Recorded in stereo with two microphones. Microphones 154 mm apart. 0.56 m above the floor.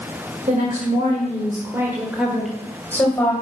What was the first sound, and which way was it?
A woman speaking, 60° right (ahead or behind).